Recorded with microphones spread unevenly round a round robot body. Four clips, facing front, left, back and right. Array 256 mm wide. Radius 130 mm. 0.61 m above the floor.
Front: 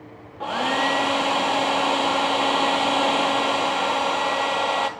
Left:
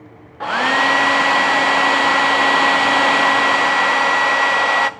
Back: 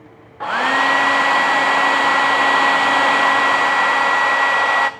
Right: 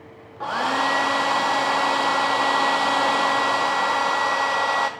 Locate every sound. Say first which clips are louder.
0.4 s a hair dryer: left 5 dB, back 5 dB; 80° left, 0.5 m